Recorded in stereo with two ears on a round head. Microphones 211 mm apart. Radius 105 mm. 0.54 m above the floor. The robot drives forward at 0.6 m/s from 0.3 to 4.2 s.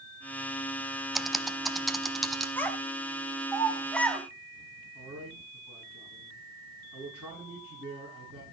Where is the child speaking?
10° left (ahead or behind), 2.5 m; by 4.2 s 5° left (ahead or behind), 3.5 m.